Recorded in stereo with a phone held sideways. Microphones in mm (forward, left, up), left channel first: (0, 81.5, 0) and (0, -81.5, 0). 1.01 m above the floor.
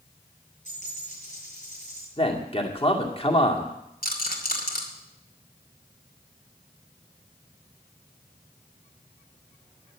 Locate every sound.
0.7 s a dropped coin: 45° left (ahead or behind), 8 m
2.2 s a man speaking: 35° left (ahead or behind), 2 m
4.0 s a rattle: 60° left (ahead or behind), 2.5 m